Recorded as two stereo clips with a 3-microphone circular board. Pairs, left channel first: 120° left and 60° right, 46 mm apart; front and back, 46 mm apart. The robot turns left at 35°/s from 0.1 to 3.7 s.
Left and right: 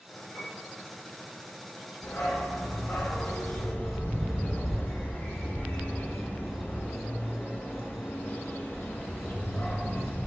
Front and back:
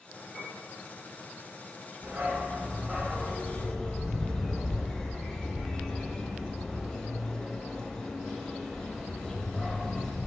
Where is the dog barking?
140° left, 0.6 m; by 10.3 s 80° left, 0.6 m.